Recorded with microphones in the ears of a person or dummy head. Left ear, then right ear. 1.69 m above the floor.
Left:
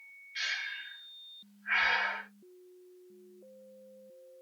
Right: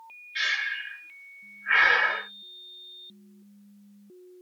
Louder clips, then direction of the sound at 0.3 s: Right 8 dB; 15° right (ahead or behind).